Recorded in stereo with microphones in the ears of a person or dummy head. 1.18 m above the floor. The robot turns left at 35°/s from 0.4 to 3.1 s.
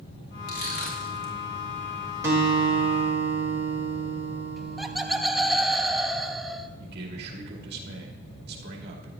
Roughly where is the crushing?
Left.